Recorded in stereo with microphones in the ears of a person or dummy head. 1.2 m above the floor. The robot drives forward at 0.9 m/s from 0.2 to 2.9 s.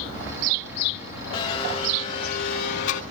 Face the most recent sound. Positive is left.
turn(degrees=65)  # may be behind; listen again after turning